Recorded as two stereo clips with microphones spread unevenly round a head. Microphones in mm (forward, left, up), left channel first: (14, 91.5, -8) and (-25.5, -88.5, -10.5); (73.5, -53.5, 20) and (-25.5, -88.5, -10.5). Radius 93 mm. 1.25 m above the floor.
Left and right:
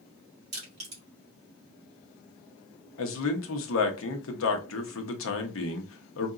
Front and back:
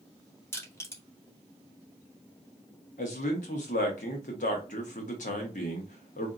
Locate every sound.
0.5 s crushing: 45° right, 2 m
3.0 s a man speaking: 60° left, 1.0 m